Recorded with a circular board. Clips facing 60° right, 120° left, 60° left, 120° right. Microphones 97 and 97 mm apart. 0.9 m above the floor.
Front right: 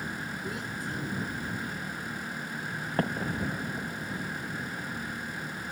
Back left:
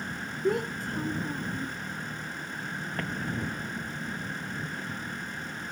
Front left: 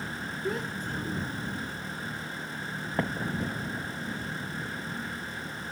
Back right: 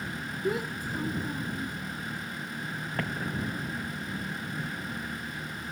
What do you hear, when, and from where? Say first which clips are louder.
0.4 s a child speaking: back left 12 dB, back right 3 dB; 160° left; by 1.8 s 170° left
3.0 s an explosion: front right 4 dB, front left 3 dB; 5° right